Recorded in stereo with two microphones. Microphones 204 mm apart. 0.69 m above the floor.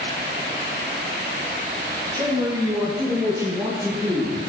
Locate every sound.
2.1 s a man speaking: 20° right (ahead or behind), 10 m; by 4.4 s 15° right (ahead or behind), 12 m